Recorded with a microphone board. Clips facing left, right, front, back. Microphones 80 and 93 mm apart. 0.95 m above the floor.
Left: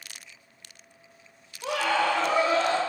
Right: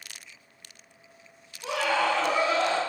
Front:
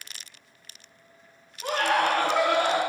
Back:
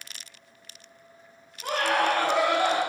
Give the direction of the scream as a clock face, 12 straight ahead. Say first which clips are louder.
Left 1 dB, front 1 dB; 10 o'clock.